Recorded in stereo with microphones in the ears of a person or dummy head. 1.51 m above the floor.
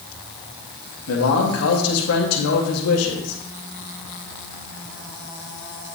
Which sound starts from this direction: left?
A man speaking, at 1.1 s.